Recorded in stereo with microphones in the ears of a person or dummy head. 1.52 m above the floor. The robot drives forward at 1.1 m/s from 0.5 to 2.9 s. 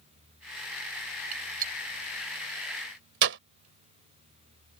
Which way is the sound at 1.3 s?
45° right (ahead or behind).